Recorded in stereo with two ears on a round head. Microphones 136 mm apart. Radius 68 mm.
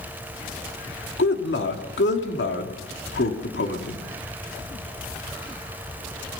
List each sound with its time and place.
1.2 s a man speaking: 90° left, 3 m